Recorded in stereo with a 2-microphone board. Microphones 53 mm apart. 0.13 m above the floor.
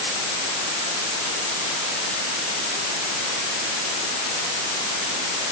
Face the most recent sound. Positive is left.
No sound to turn to.